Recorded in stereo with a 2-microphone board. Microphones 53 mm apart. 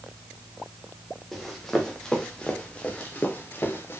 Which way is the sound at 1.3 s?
Centre (ahead or behind).